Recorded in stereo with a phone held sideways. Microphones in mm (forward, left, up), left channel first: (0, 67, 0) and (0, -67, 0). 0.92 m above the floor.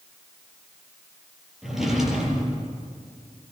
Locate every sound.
1.6 s a drawer: 5° right (ahead or behind), 5 m